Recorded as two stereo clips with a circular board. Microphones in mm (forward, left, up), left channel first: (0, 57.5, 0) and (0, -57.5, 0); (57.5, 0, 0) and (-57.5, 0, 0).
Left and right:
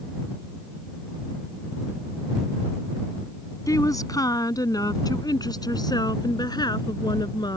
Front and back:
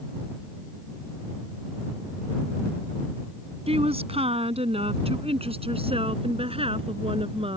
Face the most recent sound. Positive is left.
turn(degrees=145)